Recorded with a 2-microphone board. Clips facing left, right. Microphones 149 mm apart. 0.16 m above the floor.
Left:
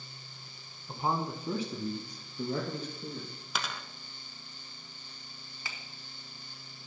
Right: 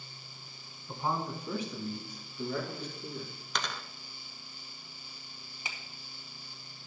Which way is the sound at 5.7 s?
20° right (ahead or behind).